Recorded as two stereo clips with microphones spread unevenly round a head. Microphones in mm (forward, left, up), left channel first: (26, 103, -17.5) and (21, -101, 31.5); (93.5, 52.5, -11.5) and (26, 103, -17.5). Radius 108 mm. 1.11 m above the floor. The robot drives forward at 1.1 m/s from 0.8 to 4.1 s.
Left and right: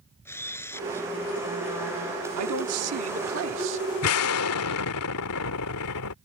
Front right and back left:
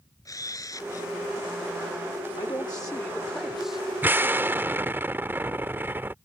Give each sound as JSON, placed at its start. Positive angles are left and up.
{"t": 0.2, "sound": "a camera shutter", "azimuth_deg": 10}
{"t": 2.4, "sound": "a man speaking", "azimuth_deg": -105}
{"t": 4.0, "sound": "an explosion", "azimuth_deg": 75}